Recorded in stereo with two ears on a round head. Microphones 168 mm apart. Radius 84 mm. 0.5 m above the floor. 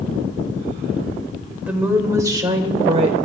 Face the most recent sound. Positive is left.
turn(degrees=-35)  # may be behind; listen again after turning